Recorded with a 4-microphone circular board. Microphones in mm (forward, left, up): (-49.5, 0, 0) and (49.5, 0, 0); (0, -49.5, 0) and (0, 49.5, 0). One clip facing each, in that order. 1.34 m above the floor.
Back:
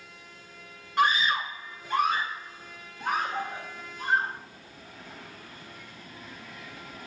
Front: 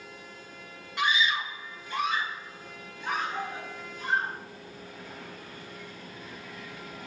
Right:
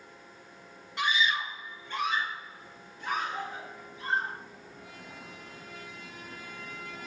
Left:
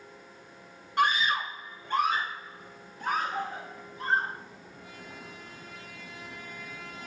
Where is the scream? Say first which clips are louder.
Back 3 dB, left 3 dB; 135° left, 0.8 m; by 4.3 s 140° left, 3 m.